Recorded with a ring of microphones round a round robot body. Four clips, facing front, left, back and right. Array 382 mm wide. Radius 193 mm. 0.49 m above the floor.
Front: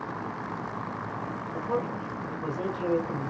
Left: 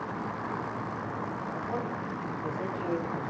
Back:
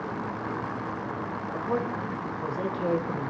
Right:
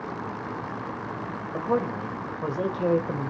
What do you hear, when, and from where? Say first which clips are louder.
1.5 s a man speaking: right 11 dB, back 1 dB; 100° right, 2.5 m